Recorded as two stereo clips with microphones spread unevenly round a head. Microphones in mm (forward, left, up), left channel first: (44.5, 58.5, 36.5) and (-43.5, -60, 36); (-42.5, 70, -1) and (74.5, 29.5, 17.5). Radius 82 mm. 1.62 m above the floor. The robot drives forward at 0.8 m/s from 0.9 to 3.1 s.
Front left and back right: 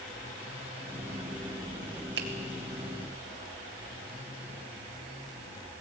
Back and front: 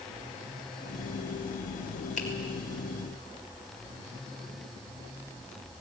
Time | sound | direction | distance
2.2 | a finger snap | 145° right | 1.9 m